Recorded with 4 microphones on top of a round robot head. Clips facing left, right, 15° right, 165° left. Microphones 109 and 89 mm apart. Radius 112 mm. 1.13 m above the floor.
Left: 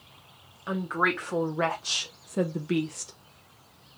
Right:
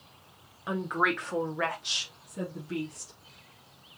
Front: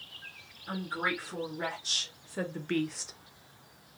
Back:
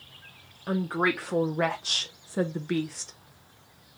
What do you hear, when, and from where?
0.7 s a woman speaking: 175° right, 1.0 m; by 3.1 s 70° left, 0.8 m